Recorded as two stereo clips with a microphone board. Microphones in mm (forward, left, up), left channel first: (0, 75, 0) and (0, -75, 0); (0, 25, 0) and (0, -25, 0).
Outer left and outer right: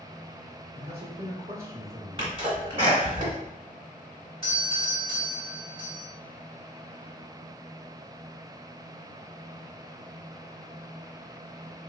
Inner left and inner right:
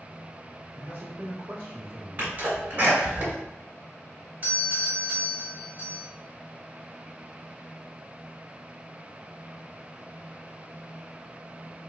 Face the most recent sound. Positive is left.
turn(degrees=-30)  # may be behind; listen again after turning